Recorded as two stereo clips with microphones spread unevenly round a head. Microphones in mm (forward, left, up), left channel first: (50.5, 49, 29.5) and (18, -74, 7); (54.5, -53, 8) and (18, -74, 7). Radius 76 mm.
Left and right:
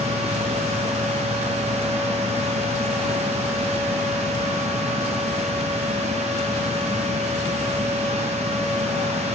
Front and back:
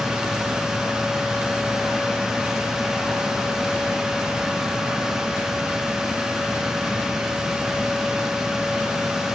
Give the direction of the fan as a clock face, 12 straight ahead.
2 o'clock.